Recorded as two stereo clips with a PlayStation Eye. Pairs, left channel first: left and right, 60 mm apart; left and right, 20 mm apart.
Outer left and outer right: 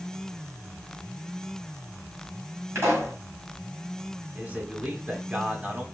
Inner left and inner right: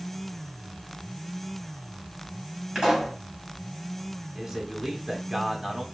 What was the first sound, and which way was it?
A pop, 45° right (ahead or behind).